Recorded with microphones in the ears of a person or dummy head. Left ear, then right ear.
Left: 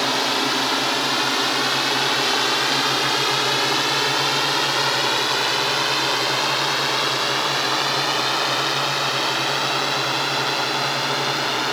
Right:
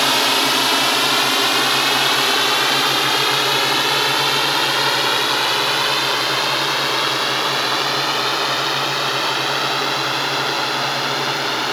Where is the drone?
30° right (ahead or behind); by 11.7 s 5° right (ahead or behind).